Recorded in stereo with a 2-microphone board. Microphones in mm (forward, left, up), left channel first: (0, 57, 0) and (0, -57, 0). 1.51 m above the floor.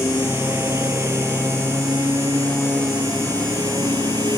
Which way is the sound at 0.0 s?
20° right (ahead or behind).